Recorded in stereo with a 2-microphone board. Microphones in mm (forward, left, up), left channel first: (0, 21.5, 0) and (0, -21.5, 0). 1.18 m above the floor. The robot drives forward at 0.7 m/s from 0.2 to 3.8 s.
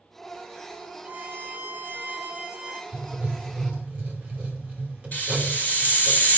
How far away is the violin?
About 0.7 m.